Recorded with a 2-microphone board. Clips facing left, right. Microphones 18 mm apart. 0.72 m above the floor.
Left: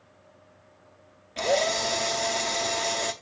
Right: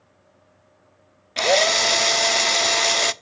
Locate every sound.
1.4 s a drill: 45° right (ahead or behind), 0.6 m